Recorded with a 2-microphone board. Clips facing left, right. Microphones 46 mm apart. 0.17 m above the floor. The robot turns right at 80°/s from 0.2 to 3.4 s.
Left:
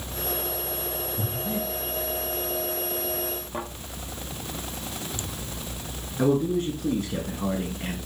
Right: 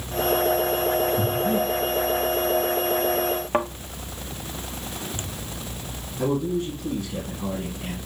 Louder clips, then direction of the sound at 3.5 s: Right 11 dB; 60° right (ahead or behind).